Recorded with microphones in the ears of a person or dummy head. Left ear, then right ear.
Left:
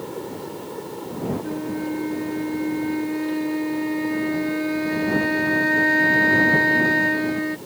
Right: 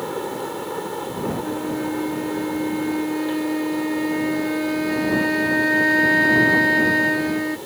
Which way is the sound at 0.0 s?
40° right (ahead or behind).